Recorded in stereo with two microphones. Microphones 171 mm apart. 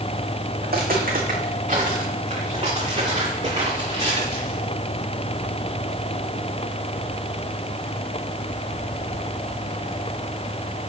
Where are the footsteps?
65° right (ahead or behind), 3 m; by 4.6 s 30° right (ahead or behind), 6.5 m.